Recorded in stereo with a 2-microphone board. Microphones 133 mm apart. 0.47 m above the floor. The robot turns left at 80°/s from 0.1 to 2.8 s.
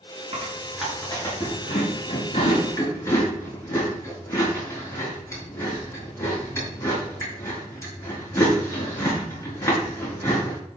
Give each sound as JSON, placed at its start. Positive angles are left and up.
{"t": 0.3, "sound": "chewing", "side_deg": -40, "distance_m": 5.5}